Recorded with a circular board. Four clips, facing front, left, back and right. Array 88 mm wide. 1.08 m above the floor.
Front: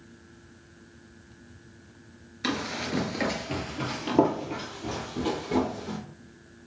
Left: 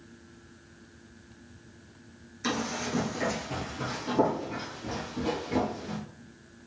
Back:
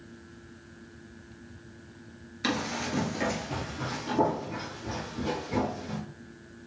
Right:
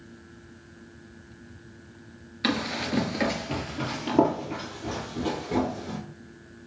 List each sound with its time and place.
2.4 s running footsteps: 90° right, 1.1 m; by 6.0 s 25° right, 2.5 m